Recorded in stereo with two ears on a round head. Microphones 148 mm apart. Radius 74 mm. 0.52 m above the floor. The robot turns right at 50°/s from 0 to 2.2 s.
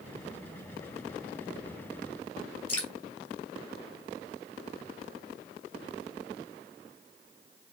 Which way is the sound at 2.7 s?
15° left (ahead or behind).